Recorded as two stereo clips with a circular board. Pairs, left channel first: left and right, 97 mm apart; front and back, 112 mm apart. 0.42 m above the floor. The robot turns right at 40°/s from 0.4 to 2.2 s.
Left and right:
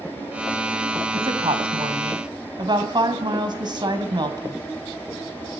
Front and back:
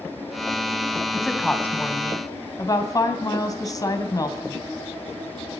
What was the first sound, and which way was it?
A woman speaking, 95° right.